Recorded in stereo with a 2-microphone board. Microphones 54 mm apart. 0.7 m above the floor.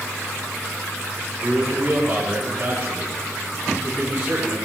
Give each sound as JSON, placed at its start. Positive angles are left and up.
{"t": 1.4, "sound": "a man speaking", "side_deg": -20, "distance_m": 7.0}